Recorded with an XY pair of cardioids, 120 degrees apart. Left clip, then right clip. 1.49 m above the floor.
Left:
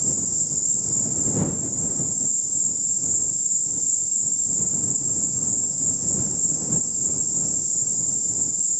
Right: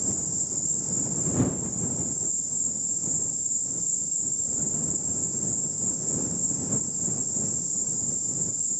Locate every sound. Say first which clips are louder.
0.0 s an insect: left 5 dB; 25° left